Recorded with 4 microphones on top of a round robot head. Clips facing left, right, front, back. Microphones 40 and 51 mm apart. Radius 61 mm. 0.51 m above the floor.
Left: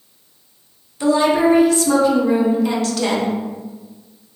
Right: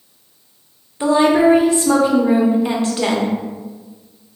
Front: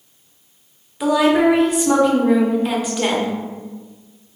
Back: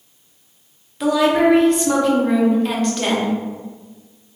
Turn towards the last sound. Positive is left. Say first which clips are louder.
# right 2 dB, front 1 dB
turn(degrees=-75)